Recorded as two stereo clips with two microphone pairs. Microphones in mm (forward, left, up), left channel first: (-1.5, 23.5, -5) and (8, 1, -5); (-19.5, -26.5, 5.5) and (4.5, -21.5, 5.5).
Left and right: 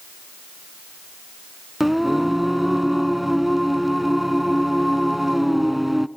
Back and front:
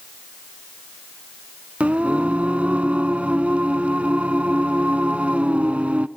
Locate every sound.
1.8 s singing: 15° left, 0.7 m